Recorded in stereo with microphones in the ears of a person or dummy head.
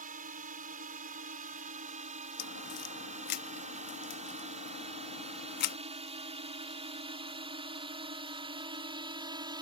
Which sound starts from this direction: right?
A drone, at 0.0 s.